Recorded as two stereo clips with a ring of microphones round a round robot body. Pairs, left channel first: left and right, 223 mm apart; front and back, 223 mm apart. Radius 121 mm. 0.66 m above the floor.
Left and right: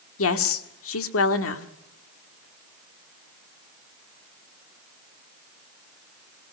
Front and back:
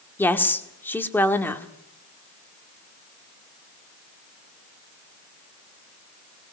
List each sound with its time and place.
0.2 s a woman speaking: 80° left, 1.7 m